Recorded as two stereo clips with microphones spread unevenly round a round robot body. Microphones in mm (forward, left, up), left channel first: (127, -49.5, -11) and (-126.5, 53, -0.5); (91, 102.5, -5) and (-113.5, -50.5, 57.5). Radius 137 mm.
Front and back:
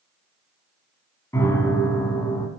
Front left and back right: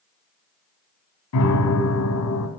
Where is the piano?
60° left, 1.1 m.